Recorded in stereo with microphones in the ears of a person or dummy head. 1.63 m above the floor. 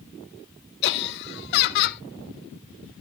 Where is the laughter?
60° left (ahead or behind), 1.5 m.